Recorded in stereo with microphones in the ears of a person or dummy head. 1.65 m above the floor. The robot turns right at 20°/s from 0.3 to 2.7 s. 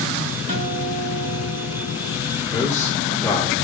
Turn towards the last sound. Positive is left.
turn(degrees=15)  # may be behind; listen again after turning